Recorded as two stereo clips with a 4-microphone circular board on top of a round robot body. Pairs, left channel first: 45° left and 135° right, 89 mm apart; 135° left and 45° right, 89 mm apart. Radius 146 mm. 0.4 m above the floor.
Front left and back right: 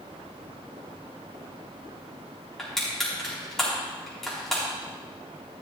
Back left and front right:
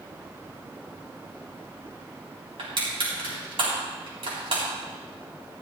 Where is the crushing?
40° right, 4.5 m.